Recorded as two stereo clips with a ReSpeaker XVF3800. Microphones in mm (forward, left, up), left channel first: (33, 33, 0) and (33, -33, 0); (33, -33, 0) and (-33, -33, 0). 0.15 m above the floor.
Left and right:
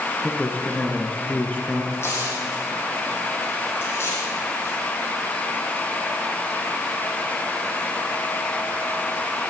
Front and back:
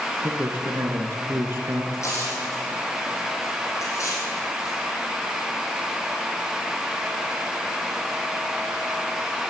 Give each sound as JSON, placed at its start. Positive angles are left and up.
{"t": 0.2, "sound": "a man speaking", "azimuth_deg": 150, "distance_m": 2.0}
{"t": 1.9, "sound": "tearing paper", "azimuth_deg": 40, "distance_m": 6.5}